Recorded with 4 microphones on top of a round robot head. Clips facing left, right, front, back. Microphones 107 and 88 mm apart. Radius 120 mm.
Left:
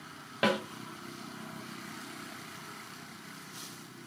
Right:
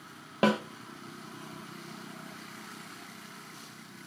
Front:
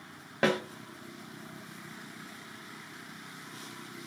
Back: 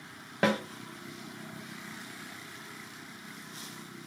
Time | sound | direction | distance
0.4 | a snare drum | 95° right | 0.9 m